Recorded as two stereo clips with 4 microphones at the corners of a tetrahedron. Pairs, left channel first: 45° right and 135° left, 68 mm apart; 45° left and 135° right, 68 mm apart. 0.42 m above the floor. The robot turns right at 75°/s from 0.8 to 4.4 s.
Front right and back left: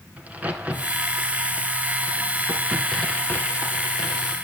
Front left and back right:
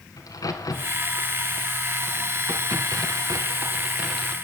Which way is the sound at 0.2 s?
65° left.